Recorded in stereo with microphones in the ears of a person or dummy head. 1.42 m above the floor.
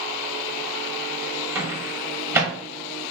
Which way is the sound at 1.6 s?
15° right (ahead or behind).